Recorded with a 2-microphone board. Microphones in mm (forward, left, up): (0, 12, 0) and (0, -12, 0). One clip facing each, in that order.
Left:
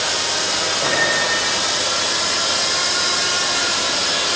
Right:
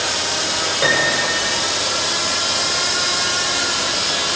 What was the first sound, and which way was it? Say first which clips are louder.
A piano: right 3 dB; 80° right.